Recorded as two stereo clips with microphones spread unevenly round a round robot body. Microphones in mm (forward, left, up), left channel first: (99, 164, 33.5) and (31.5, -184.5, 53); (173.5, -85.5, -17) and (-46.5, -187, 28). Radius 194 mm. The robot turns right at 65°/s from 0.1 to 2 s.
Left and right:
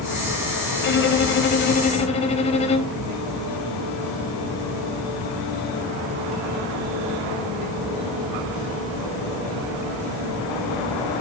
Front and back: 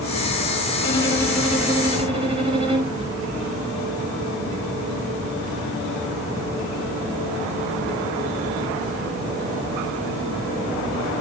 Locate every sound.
0.8 s a violin: 55° left, 1.3 m; by 3.0 s 130° left, 1.3 m